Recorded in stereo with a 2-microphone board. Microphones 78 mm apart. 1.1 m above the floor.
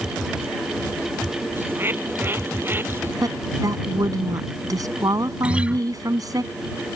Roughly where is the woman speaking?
Right.